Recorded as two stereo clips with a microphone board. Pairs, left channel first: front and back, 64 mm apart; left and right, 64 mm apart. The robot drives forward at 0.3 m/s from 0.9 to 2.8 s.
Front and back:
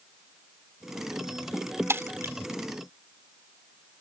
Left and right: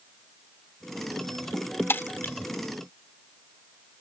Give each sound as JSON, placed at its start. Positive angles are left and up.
{"t": 1.9, "sound": "breaking glass", "azimuth_deg": 140}